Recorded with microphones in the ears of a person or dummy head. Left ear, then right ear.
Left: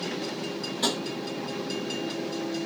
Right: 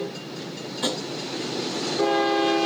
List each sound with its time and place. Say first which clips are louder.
0.8 s tapping: right 1 dB; 5° right (ahead or behind), 1.0 m